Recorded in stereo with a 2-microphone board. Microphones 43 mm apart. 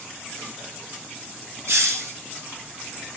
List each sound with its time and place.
1.7 s a hiss: 75° right (ahead or behind), 5.5 m